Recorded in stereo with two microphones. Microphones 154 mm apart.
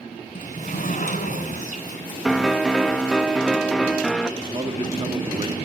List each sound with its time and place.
0.3 s a sliding door: 55° left (ahead or behind), 2.5 m
2.2 s a piano: centre (ahead or behind), 1.0 m
4.4 s a man speaking: 30° right (ahead or behind), 1.5 m